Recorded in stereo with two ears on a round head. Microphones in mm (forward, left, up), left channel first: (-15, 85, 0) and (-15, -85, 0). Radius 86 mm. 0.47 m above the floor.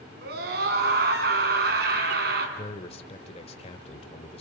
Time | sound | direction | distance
0.2 | a scream | 55° right (ahead or behind) | 6 m
2.6 | a man speaking | 35° left (ahead or behind) | 1.7 m